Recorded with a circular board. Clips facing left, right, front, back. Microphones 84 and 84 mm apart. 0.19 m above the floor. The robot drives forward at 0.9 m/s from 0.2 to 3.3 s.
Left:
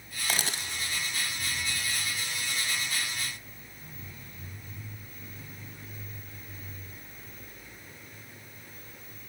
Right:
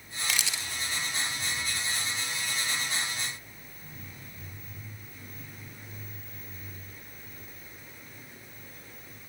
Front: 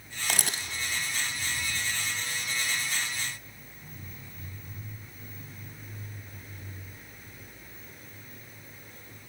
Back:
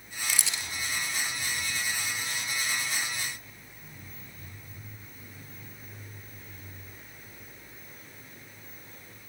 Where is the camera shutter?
35° left, 0.9 m; by 0.7 s 55° left, 0.6 m.